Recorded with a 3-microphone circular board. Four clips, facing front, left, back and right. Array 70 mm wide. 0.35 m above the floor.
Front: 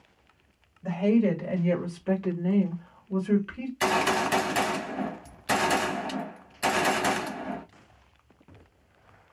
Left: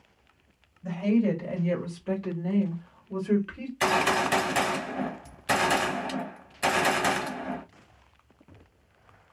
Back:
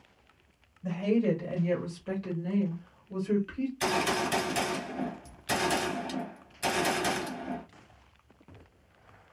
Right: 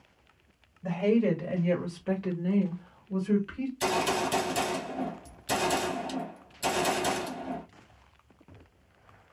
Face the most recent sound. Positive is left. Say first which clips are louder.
# left 4 dB, front 5 dB
turn(degrees=55)